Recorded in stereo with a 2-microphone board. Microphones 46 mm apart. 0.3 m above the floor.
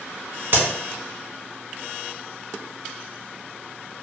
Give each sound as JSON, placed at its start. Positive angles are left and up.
{"t": 0.5, "sound": "a crack", "side_deg": -50, "distance_m": 0.7}